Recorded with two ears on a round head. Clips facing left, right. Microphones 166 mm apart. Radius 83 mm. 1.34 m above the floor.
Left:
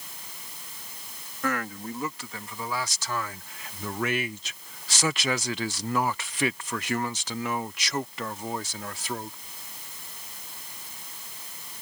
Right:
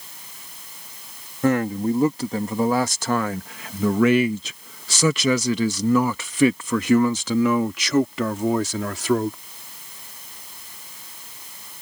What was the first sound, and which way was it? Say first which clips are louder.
A man speaking: right 11 dB; 20° right (ahead or behind).